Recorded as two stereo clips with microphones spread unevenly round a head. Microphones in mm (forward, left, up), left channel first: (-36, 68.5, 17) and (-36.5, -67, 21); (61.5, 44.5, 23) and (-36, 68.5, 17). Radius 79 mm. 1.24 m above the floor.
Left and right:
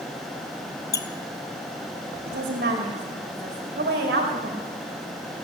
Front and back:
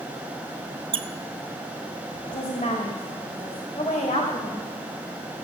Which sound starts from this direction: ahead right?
A woman speaking, at 2.3 s.